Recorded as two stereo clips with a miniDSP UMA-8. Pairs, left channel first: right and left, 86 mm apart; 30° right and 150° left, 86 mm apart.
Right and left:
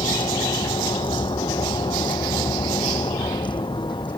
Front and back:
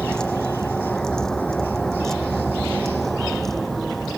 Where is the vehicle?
110° right; by 4.2 s 120° right.